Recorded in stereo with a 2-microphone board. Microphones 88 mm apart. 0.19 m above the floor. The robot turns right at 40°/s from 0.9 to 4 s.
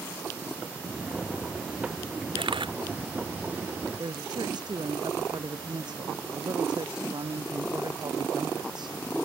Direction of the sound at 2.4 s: 80° right.